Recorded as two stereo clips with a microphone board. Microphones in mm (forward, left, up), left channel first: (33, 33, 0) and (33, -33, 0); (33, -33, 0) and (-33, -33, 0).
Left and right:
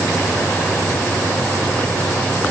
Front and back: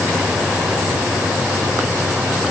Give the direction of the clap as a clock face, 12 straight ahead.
I don't hear a clap.